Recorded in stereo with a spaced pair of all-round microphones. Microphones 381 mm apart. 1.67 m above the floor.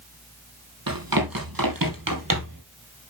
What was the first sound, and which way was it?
Running footsteps, 65° right (ahead or behind).